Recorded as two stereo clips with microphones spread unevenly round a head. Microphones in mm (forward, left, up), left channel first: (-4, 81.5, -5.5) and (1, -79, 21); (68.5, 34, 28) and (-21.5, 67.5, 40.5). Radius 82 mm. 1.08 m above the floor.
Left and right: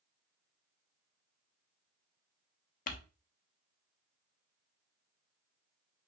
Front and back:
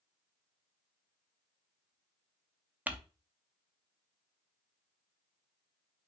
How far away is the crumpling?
About 0.8 m.